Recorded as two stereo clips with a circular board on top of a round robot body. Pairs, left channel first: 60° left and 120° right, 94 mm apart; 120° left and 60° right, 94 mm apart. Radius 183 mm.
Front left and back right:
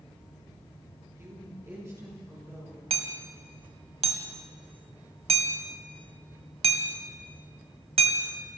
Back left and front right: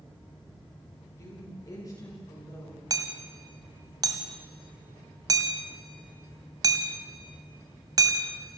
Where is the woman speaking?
Straight behind, 9 m; by 2.8 s 175° left, 8 m.